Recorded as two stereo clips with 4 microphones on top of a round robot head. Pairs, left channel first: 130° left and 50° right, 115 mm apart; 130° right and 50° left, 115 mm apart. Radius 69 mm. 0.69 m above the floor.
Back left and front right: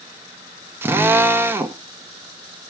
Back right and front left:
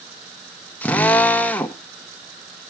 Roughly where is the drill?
Right.